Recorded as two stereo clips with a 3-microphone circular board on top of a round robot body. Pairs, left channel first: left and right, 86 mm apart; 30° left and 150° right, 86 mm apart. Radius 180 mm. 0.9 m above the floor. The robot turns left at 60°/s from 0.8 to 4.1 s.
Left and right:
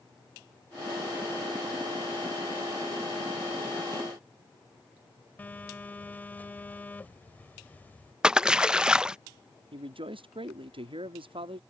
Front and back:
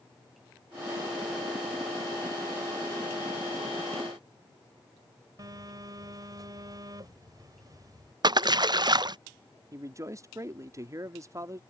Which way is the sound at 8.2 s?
170° right.